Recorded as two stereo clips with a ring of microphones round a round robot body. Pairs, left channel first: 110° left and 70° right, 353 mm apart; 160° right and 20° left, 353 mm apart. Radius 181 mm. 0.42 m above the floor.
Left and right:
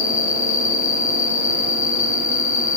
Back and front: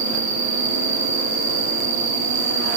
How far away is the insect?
About 4.5 m.